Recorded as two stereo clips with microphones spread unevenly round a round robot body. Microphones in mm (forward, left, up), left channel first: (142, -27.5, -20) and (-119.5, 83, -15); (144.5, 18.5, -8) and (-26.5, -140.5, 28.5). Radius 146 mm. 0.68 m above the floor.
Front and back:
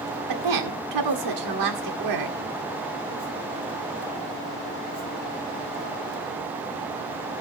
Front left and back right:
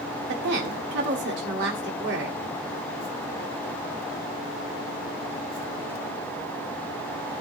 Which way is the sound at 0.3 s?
170° left.